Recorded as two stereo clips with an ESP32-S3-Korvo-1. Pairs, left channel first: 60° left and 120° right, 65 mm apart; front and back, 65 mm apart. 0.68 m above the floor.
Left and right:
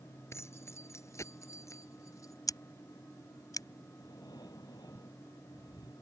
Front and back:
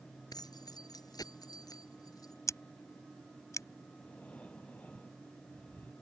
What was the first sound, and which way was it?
Keys jangling, 15° left.